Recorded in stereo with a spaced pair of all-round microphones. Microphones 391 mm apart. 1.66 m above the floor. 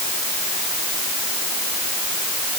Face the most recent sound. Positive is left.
No sound to turn to.